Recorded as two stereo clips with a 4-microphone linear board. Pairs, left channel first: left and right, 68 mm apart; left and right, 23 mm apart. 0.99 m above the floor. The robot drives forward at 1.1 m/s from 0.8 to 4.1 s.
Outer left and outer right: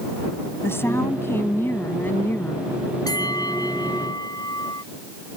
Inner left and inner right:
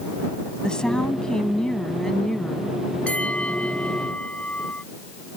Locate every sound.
0.6 s a woman speaking: 35° left (ahead or behind); by 2.7 s 30° left (ahead or behind)
3.1 s a bell: 75° left (ahead or behind); by 4.8 s 80° left